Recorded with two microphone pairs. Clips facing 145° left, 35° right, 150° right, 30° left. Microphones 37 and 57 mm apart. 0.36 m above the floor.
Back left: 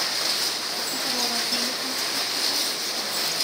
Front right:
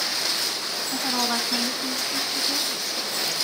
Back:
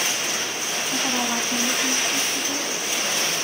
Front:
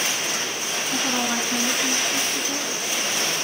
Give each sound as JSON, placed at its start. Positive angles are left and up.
{"t": 0.9, "sound": "a woman speaking", "azimuth_deg": -70, "distance_m": 2.0}